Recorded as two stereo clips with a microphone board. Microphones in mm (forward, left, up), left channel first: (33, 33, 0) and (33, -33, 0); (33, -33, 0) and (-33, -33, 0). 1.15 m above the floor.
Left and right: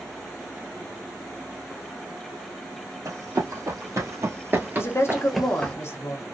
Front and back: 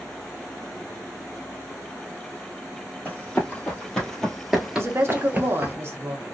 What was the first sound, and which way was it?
Running footsteps, 65° right.